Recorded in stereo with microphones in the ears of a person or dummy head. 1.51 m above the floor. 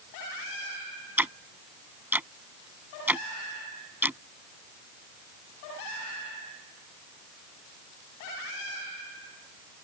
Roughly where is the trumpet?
No trumpet in this recording.